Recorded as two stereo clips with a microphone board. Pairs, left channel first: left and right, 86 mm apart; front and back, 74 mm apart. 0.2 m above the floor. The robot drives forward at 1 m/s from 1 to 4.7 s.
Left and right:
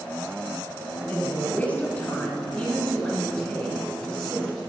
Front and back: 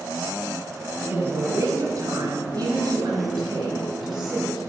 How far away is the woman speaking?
About 1.4 m.